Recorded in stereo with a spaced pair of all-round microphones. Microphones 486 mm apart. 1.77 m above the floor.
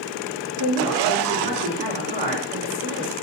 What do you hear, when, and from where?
0.6 s a woman speaking: 60° right (ahead or behind), 4.5 m